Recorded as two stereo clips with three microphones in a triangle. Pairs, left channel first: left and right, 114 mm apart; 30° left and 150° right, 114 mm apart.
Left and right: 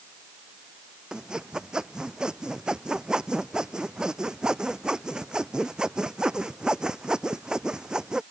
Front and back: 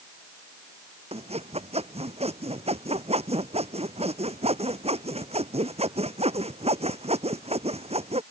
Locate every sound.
1.1 s sawing: 175° right